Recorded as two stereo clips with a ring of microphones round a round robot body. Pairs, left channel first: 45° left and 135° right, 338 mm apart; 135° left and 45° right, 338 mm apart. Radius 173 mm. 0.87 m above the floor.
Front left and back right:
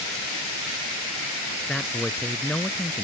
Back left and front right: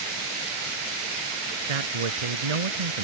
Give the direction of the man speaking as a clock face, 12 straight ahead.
1 o'clock.